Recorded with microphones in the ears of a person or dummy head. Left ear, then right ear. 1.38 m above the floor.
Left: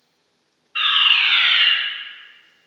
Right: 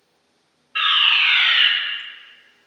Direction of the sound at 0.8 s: 5° right (ahead or behind).